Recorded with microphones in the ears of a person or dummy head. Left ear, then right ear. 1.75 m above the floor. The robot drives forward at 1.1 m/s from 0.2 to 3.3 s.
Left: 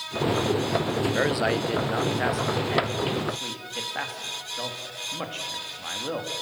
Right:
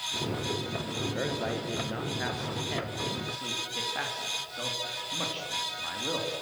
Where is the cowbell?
I don't hear a cowbell.